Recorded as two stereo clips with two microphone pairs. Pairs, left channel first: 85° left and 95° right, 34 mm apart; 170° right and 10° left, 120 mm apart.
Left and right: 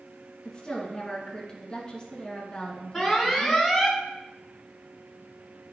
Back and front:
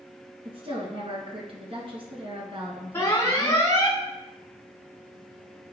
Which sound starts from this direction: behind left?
An alarm, at 2.9 s.